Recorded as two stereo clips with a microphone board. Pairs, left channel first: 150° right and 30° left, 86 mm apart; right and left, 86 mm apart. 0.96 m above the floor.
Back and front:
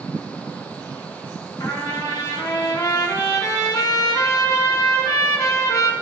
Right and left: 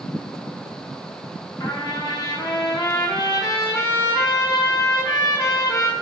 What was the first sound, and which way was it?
A trumpet, 115° right.